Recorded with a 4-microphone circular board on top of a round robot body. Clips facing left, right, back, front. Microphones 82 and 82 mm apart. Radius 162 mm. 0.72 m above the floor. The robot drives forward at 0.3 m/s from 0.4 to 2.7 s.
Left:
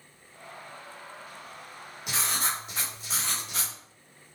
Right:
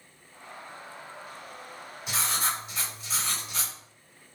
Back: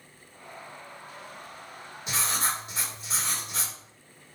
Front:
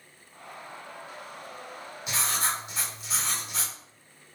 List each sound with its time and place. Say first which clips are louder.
2.1 s writing: right 1 dB, even; 120° left, 1.3 m; by 3.7 s 130° left, 1.5 m